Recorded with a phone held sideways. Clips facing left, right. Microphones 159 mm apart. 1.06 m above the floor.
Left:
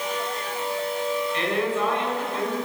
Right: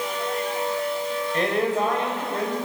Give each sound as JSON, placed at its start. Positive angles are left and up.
{"t": 1.3, "sound": "a man speaking", "side_deg": -45, "distance_m": 6.0}